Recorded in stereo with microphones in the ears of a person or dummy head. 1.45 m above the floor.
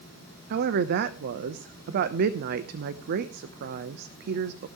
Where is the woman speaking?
55° right (ahead or behind), 0.8 m.